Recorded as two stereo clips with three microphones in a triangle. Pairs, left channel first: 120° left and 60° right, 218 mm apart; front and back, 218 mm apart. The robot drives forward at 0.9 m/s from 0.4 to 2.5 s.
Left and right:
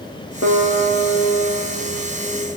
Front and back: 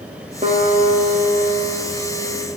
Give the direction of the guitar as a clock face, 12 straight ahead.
8 o'clock.